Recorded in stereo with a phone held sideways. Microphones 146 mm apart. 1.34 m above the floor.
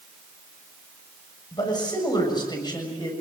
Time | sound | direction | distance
1.5 | a man speaking | 30° left (ahead or behind) | 7 m